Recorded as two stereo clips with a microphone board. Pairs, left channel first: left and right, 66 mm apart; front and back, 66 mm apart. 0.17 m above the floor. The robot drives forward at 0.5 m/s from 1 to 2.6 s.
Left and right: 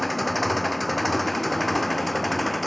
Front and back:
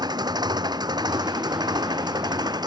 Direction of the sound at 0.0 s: Straight behind.